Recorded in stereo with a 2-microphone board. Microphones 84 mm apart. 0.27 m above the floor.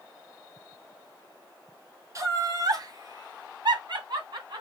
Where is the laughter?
40° right (ahead or behind), 1.4 m; by 4.6 s 60° right (ahead or behind), 2.5 m.